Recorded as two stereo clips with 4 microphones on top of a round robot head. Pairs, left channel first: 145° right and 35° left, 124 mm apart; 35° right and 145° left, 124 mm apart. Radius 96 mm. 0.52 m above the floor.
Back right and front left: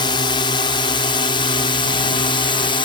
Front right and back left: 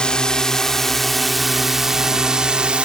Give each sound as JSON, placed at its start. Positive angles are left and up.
{"t": 0.0, "sound": "a drone", "azimuth_deg": -115}